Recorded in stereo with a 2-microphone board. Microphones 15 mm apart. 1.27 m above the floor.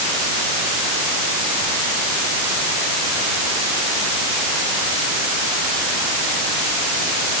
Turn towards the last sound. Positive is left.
No sound to turn to.